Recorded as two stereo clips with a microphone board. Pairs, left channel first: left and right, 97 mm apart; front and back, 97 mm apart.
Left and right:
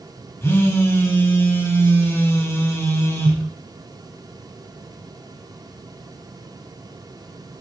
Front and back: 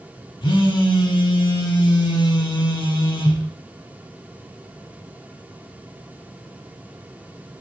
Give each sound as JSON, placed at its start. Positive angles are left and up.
{"t": 0.4, "sound": "a phone buzzing", "azimuth_deg": 30, "distance_m": 0.5}